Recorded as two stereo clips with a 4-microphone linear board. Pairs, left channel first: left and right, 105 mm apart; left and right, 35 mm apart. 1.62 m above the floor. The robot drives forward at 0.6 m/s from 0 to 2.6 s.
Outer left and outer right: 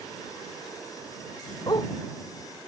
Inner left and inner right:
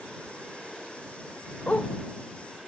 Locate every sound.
1.7 s a dog barking: 40° left (ahead or behind)